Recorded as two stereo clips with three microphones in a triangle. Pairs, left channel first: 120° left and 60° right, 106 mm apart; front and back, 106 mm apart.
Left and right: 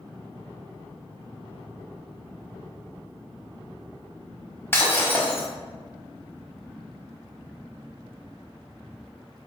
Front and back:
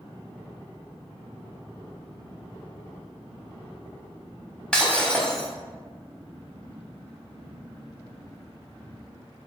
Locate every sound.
4.7 s breaking glass: 75° left, 0.8 m